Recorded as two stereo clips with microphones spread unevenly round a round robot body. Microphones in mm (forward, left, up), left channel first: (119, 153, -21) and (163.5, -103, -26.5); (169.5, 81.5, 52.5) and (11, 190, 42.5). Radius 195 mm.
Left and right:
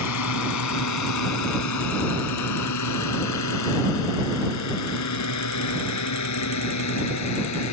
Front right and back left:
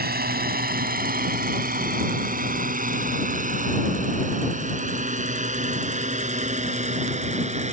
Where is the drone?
115° left; by 7.7 s 90° left.